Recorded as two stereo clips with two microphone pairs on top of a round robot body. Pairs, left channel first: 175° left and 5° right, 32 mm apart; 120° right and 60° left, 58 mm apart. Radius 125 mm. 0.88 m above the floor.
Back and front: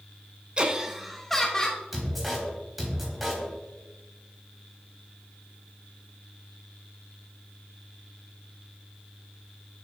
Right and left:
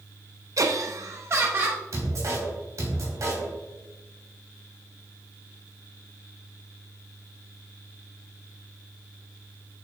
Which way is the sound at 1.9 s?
80° left.